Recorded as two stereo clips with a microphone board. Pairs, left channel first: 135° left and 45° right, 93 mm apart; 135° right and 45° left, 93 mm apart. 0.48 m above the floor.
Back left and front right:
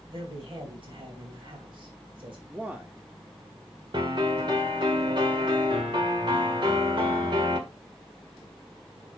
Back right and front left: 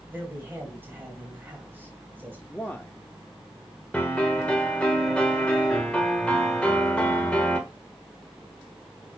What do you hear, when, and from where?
0.1 s a man speaking: 20° right, 3 m
2.5 s a man speaking: 90° right, 1.1 m
3.9 s a piano: 60° right, 1.7 m